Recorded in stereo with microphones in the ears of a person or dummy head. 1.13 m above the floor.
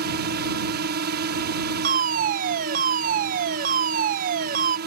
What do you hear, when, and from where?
0.0 s a drone: 50° right (ahead or behind)
1.8 s a fire alarm: 45° right (ahead or behind)